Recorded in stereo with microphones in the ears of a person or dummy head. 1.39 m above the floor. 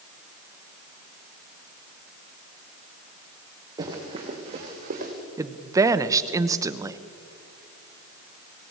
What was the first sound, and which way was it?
Running footsteps, 20° right (ahead or behind).